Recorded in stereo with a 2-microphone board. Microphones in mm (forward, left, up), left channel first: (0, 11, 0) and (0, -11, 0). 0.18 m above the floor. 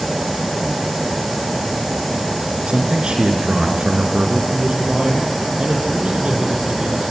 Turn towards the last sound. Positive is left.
turn(degrees=-55)  # may be behind; listen again after turning